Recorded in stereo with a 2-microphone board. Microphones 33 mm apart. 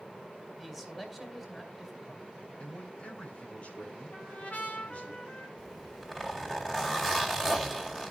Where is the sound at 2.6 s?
40° left (ahead or behind), 3 m.